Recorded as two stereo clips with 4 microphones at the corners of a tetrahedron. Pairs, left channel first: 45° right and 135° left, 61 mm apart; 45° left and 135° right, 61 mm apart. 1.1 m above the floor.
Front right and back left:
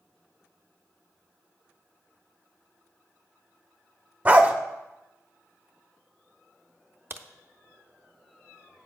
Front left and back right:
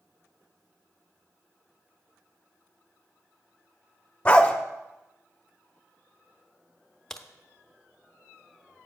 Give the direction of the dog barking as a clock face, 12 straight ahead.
9 o'clock.